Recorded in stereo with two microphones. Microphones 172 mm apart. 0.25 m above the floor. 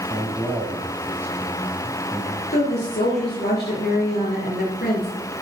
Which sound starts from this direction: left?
A woman speaking, at 2.5 s.